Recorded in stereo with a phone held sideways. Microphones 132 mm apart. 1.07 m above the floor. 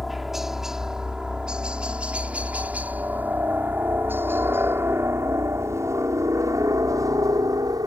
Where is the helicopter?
Centre (ahead or behind); by 7.9 s 30° right (ahead or behind).